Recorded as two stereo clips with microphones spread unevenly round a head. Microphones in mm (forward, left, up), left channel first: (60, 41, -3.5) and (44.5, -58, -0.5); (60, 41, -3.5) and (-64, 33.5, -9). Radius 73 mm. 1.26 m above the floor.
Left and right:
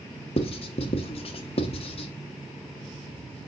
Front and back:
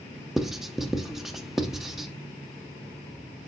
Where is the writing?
95° left, 1.0 m.